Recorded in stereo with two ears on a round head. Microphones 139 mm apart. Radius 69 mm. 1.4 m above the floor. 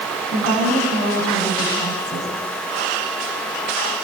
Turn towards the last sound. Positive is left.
turn(degrees=50)  # may be behind; listen again after turning